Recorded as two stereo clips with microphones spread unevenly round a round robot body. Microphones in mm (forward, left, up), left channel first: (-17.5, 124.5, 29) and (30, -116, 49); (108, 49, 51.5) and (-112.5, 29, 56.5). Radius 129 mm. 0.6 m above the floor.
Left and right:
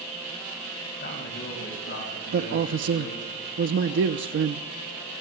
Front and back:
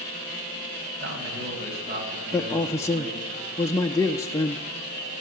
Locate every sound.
1.0 s a man speaking: 150° left, 4.5 m; by 3.3 s 130° left, 7 m
2.3 s a man speaking: 65° right, 0.7 m